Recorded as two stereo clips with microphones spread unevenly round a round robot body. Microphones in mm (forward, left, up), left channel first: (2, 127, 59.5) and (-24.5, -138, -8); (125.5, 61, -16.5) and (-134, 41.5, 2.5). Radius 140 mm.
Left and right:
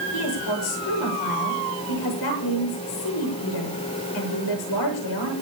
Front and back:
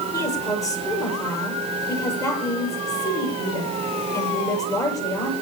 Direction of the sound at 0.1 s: 80° left.